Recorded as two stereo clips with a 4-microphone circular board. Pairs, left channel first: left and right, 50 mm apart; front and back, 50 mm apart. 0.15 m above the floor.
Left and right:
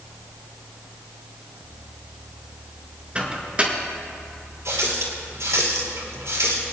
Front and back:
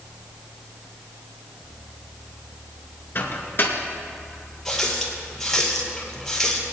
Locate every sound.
3.1 s a microwave: 30° right, 1.9 m
4.7 s a running tap: 85° right, 2.5 m